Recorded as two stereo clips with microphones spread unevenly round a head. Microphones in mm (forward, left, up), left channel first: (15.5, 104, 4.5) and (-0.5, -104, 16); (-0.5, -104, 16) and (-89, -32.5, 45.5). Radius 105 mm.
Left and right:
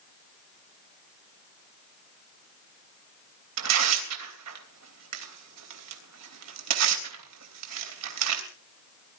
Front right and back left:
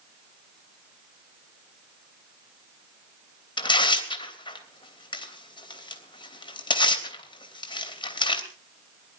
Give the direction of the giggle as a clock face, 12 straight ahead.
I don't hear a giggle.